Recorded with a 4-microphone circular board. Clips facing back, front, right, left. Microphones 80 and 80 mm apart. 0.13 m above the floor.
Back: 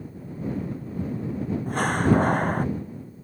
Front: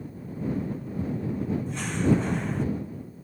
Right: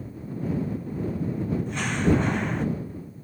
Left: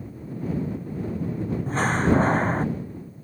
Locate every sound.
1.7 s a door slam: 140° left